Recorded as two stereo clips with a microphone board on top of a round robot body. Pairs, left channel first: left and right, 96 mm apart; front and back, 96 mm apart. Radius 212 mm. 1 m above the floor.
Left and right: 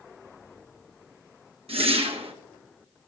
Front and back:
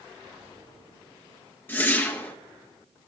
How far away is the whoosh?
About 1.1 m.